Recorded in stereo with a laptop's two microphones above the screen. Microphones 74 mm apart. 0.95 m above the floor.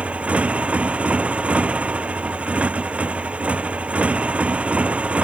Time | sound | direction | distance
0.0 | a motorcycle | 15° right (ahead or behind) | ?